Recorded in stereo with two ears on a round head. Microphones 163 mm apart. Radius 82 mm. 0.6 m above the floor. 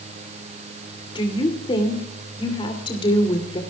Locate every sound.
1.1 s a woman speaking: 30° left (ahead or behind), 2.5 m